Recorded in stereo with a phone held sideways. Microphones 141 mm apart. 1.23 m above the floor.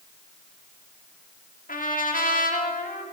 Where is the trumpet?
75° left (ahead or behind), 2.5 m.